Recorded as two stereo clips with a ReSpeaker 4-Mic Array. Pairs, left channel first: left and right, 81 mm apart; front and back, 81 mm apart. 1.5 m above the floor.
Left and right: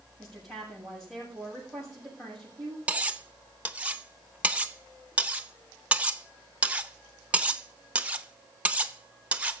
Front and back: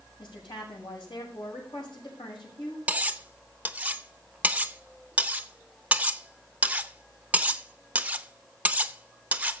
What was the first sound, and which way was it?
A woman speaking, 10° left.